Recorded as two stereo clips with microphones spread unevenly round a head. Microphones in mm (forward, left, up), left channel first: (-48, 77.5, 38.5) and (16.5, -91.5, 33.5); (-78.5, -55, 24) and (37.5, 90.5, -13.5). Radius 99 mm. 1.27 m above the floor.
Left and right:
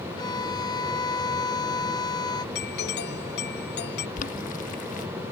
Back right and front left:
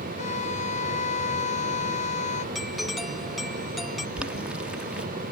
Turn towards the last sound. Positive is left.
turn(degrees=145)